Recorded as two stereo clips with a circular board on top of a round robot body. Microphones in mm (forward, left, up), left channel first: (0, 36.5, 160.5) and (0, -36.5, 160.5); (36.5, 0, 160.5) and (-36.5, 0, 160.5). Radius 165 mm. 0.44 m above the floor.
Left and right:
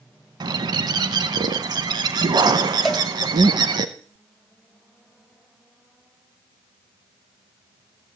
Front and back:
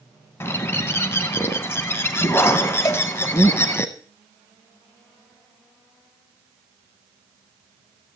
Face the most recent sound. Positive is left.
turn(degrees=0)